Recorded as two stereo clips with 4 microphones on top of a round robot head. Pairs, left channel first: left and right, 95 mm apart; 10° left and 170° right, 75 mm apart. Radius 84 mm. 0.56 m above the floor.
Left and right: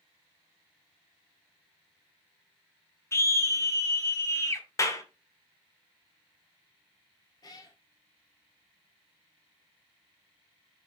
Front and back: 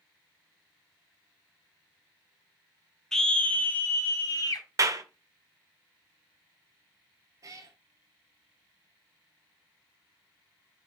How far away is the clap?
About 1.3 m.